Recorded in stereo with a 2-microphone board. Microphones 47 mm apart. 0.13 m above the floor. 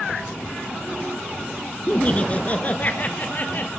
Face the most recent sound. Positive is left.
turn(degrees=40)  # may be behind; listen again after turning